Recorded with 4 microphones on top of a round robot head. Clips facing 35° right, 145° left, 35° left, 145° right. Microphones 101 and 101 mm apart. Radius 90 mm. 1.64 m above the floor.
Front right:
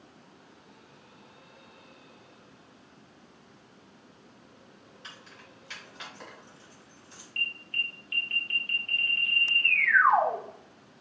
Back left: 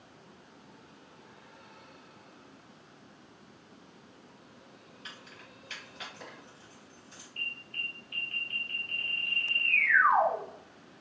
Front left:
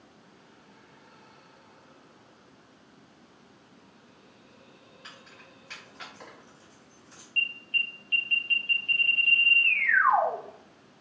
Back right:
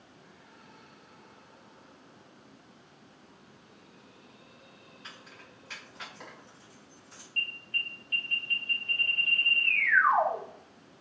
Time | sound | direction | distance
5.0 | keys jangling | 60° right | 1.6 m
7.4 | an alarm | 10° right | 0.5 m